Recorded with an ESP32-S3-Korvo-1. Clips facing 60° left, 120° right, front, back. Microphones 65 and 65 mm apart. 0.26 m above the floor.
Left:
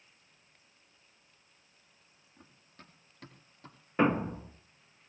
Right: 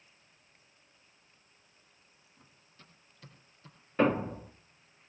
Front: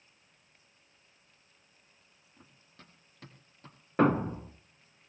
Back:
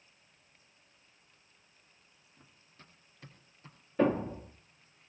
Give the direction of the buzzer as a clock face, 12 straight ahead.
No buzzer in this recording.